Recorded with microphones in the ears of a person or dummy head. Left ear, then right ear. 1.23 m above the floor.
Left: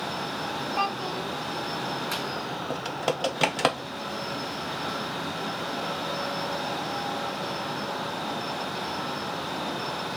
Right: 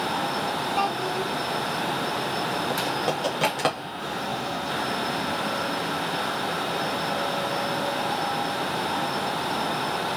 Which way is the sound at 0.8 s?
Centre (ahead or behind).